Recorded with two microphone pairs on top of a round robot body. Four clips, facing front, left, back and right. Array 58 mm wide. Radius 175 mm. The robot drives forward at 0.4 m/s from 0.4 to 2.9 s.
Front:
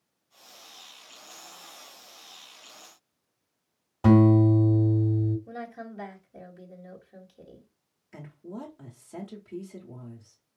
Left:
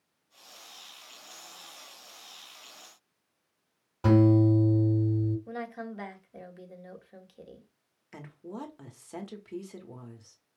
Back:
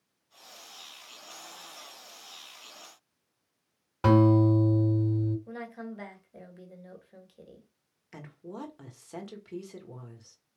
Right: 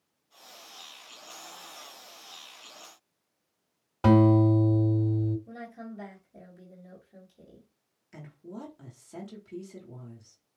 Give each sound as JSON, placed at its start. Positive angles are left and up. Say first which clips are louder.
{"t": 4.0, "sound": "a guitar", "louder": "right 1 dB, front 2 dB", "azimuth_deg": -145, "distance_m": 3.5}
{"t": 5.5, "sound": "a woman speaking", "louder": "left 4 dB, front 1 dB", "azimuth_deg": 105, "distance_m": 1.9}
{"t": 8.1, "sound": "a woman speaking", "louder": "left 2 dB, front 1 dB", "azimuth_deg": 130, "distance_m": 1.6}